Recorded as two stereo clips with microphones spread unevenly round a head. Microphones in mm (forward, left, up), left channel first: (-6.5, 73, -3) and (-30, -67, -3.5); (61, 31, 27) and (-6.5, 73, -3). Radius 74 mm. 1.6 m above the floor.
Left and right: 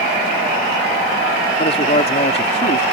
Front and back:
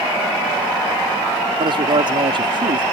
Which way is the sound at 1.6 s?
130° left.